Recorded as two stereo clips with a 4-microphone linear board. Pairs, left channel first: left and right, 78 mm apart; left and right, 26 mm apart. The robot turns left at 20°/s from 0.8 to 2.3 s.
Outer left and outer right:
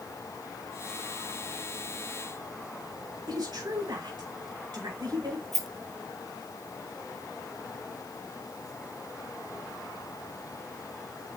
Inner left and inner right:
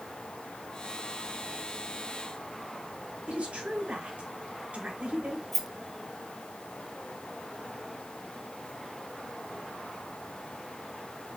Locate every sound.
3.3 s a woman speaking: 70° right (ahead or behind), 4.5 m
5.5 s a rattle: centre (ahead or behind), 1.3 m